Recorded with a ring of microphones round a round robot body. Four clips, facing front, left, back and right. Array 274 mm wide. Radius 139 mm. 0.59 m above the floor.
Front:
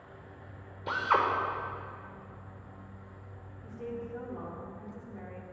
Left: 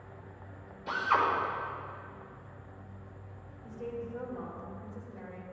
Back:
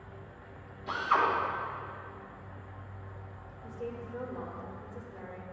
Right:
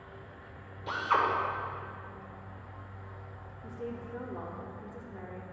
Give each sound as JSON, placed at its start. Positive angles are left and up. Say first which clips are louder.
{"t": 0.9, "sound": "a drill", "louder": "even, even", "azimuth_deg": -10, "distance_m": 1.4}
{"t": 3.6, "sound": "a woman speaking", "louder": "left 1 dB, front 1 dB", "azimuth_deg": -75, "distance_m": 1.8}